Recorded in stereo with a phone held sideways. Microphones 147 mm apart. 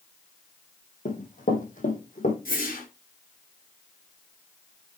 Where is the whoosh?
75° left (ahead or behind), 4 m.